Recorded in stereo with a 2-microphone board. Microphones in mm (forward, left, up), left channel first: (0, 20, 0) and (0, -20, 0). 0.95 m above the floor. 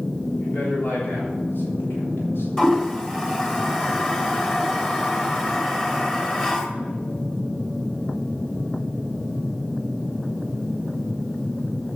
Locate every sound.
0.4 s a man speaking: 50° left (ahead or behind), 3 m; by 2.5 s 75° left (ahead or behind), 3 m
2.6 s a toilet flushing: 20° left (ahead or behind), 1.5 m